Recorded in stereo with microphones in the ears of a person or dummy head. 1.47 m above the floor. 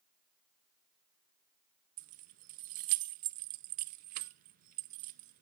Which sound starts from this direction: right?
Keys jangling, at 2.0 s.